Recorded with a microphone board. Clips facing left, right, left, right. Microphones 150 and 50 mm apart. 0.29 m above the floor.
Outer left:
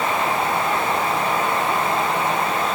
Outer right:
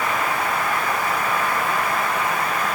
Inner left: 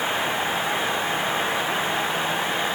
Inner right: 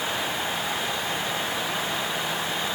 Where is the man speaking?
No man speaking in this recording.